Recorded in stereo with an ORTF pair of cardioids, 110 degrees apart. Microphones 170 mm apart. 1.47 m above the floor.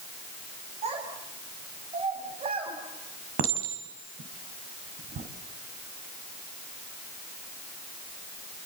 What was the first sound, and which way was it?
A child speaking, 35° right.